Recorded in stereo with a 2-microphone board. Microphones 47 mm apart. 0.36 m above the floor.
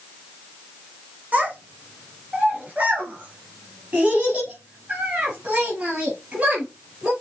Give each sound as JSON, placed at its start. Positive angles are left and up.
{"t": 1.3, "sound": "a child speaking", "side_deg": -35, "distance_m": 2.0}